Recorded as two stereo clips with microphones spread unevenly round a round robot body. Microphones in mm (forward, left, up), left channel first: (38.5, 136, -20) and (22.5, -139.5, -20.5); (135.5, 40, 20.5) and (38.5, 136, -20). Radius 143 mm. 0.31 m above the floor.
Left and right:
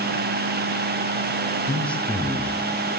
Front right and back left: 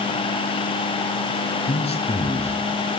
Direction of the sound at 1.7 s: Straight ahead.